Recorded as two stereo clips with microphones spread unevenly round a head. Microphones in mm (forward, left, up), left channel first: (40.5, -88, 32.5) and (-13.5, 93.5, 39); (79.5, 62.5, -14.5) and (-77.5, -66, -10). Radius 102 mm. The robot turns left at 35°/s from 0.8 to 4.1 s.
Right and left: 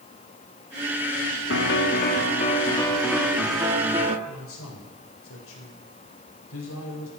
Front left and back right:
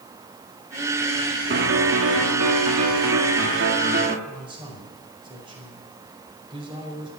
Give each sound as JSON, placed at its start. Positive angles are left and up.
{"t": 1.5, "sound": "a piano", "azimuth_deg": -100, "distance_m": 1.5}
{"t": 4.3, "sound": "a man speaking", "azimuth_deg": -75, "distance_m": 4.5}